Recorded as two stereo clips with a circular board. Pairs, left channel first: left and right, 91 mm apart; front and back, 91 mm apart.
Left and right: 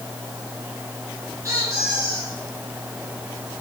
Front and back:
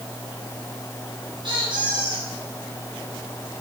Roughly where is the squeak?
Behind right.